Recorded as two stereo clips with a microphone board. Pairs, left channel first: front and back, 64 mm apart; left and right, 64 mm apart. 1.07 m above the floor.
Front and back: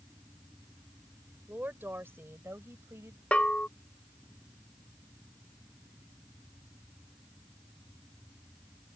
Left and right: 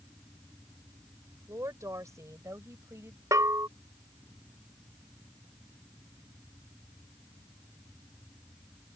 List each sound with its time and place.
1.5 s a woman speaking: 120° right; by 3.2 s 135° right
3.3 s a bell: 70° right